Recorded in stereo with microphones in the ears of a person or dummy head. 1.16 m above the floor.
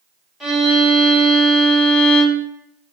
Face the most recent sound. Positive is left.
turn(degrees=0)  # may be behind; listen again after turning